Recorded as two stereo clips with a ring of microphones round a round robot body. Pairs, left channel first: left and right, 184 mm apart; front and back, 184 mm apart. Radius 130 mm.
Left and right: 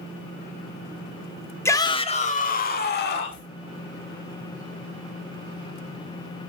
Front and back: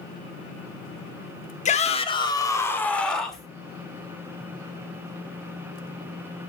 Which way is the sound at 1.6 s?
20° left.